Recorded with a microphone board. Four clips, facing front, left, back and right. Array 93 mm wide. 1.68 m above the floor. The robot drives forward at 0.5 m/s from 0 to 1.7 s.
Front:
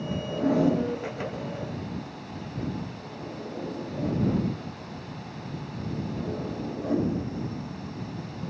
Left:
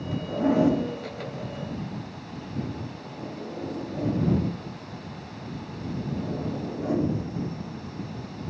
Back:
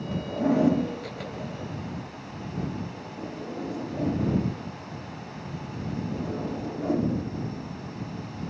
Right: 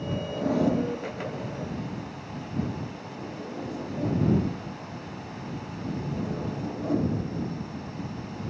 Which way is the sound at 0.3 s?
95° left.